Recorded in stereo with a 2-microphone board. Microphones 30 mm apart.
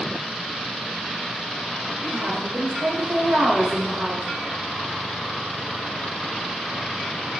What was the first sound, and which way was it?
A woman speaking, 60° right (ahead or behind).